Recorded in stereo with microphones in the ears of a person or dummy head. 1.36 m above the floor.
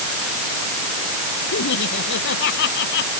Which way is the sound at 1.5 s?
65° left (ahead or behind).